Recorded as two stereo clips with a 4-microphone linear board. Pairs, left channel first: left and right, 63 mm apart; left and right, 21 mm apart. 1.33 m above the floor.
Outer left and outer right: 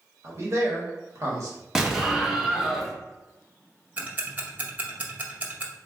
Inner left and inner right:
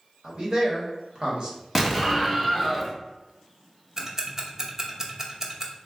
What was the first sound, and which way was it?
A man speaking, 45° right (ahead or behind).